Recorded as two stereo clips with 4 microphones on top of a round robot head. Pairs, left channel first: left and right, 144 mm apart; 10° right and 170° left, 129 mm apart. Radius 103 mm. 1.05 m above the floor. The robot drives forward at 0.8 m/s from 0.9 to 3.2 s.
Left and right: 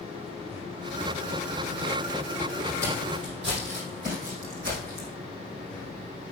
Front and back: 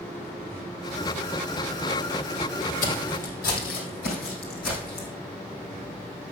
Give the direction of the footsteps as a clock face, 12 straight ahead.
1 o'clock.